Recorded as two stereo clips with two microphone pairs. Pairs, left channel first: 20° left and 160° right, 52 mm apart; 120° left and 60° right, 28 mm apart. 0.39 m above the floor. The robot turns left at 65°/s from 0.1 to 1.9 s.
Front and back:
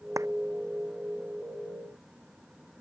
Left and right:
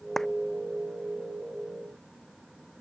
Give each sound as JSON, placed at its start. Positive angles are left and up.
{"t": 0.2, "sound": "a clap", "azimuth_deg": -165}